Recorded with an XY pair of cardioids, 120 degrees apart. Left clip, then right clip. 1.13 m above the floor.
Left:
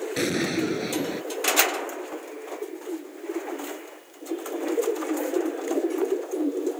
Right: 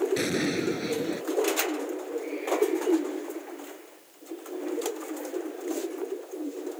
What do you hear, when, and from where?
0.2 s an explosion: 15° left